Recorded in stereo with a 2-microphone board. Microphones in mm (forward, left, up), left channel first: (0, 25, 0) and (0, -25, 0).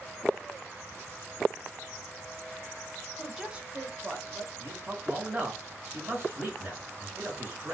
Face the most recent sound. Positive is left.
turn(degrees=-30)  # may be behind; listen again after turning